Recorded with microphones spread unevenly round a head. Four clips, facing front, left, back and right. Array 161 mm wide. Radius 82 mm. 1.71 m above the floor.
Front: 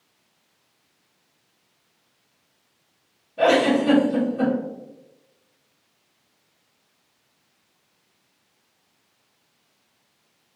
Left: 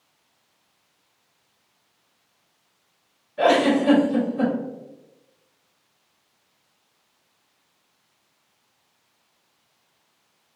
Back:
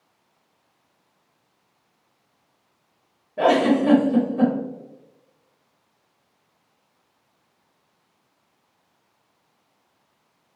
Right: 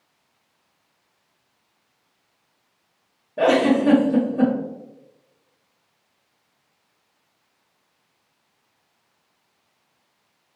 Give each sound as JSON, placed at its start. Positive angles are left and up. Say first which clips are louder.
{"t": 3.4, "sound": "a giggle", "louder": "right 1 dB, even", "azimuth_deg": -115, "distance_m": 0.9}